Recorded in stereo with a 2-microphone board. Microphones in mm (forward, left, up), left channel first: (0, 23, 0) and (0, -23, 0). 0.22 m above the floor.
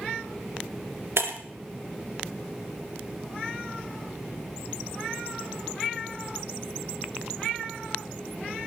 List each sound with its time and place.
1.2 s breaking glass: 70° right (ahead or behind), 2 m